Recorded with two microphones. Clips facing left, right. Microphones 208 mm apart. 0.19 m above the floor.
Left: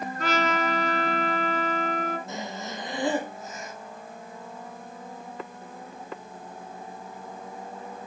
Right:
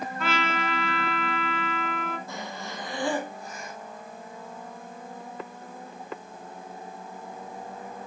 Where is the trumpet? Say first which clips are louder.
Left 4 dB; 40° left (ahead or behind), 2 m.